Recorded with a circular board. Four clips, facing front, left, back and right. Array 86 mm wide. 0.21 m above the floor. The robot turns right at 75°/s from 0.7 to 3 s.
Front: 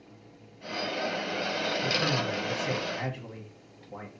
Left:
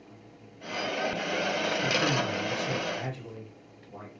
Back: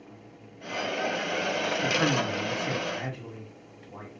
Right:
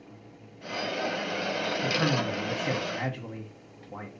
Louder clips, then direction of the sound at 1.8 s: Right 2 dB, back 5 dB; 165° right.